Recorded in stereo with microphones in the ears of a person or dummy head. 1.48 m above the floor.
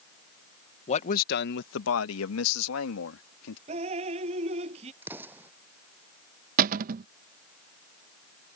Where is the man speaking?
35° left (ahead or behind); by 3.6 s 80° left.